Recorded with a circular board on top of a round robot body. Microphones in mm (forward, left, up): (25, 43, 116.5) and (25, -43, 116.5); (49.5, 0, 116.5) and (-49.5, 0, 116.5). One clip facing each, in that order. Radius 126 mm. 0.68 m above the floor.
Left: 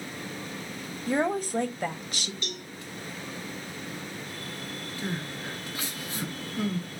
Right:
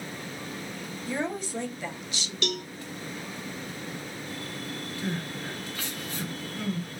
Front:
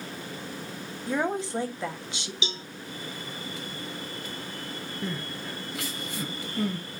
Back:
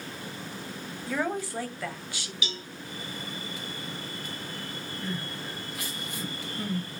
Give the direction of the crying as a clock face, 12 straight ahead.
12 o'clock.